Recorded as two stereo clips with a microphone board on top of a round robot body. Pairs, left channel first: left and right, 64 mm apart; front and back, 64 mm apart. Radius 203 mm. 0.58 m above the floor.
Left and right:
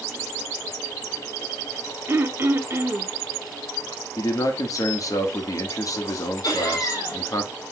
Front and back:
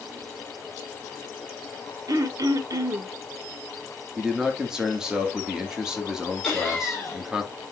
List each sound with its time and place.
2.1 s throat clearing: 145° right, 0.7 m
4.2 s a man speaking: 100° left, 2 m
6.4 s laughter: 80° left, 3 m